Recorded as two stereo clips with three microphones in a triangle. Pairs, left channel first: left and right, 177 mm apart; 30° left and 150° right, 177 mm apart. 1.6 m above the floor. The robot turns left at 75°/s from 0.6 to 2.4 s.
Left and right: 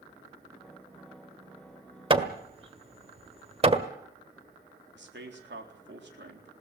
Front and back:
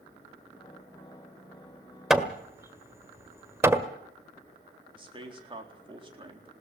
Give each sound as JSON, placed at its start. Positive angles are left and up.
{"t": 2.1, "sound": "hammering", "azimuth_deg": -65, "distance_m": 1.5}
{"t": 5.0, "sound": "a man speaking", "azimuth_deg": -90, "distance_m": 4.0}